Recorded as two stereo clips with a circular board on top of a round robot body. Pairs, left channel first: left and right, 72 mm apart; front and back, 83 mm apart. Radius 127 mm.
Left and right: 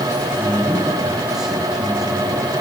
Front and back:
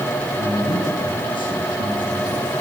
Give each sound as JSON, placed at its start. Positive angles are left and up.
{"t": 0.4, "sound": "a man speaking", "azimuth_deg": -10, "distance_m": 9.5}